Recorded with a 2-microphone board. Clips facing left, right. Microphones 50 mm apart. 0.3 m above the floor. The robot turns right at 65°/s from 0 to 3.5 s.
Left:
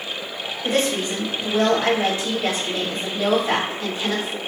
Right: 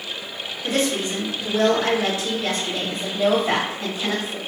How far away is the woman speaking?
About 1.1 m.